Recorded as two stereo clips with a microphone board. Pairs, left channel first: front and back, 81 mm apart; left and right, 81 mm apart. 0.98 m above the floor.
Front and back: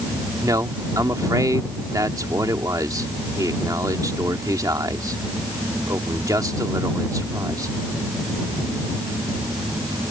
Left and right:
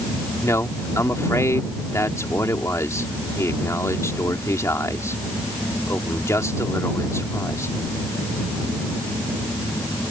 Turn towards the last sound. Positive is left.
turn(degrees=140)